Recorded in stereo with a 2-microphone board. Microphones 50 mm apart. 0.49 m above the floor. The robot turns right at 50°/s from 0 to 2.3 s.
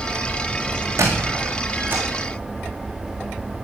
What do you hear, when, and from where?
1.0 s a squeak: 85° right, 3.5 m; by 2.0 s 35° right (ahead or behind), 3.5 m